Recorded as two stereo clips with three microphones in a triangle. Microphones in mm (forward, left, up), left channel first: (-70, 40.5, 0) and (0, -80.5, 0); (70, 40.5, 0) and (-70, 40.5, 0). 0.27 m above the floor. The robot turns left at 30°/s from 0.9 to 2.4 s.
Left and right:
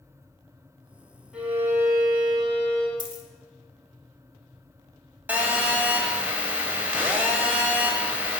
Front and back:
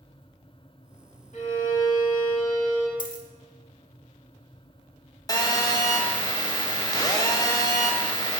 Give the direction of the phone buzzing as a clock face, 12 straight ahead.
12 o'clock.